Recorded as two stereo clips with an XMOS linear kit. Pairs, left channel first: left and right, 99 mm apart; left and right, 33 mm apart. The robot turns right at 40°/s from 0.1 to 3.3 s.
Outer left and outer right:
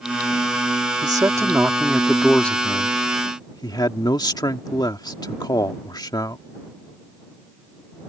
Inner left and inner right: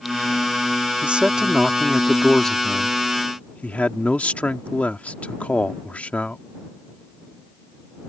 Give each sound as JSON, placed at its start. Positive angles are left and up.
{"t": 1.0, "sound": "a man speaking", "azimuth_deg": -45}